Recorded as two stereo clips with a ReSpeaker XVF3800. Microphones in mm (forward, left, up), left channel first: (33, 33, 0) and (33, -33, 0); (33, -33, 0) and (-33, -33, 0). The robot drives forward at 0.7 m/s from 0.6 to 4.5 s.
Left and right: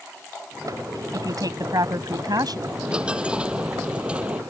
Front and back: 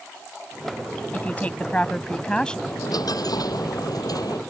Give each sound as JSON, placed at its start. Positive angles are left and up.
{"t": 1.1, "sound": "a woman speaking", "azimuth_deg": -65}
{"t": 2.7, "sound": "a dropped coin", "azimuth_deg": -15}